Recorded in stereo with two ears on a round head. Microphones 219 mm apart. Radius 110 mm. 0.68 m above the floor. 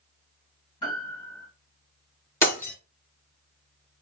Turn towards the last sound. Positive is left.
turn(degrees=10)  # may be behind; listen again after turning